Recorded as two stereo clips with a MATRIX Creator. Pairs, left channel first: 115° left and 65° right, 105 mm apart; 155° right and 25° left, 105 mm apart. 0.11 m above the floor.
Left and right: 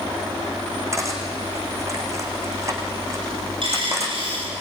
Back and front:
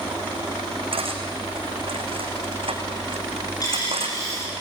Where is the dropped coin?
105° right, 8.5 m.